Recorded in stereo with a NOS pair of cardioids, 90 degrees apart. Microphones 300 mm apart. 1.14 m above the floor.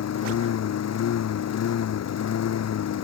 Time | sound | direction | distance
0.0 | a lawn mower | 60° left | ?